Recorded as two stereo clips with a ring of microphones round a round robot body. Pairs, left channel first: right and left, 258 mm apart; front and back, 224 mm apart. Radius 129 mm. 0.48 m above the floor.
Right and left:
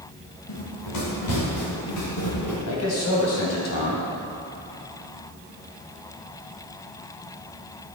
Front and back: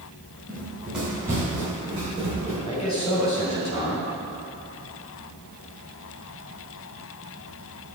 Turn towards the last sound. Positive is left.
turn(degrees=-65)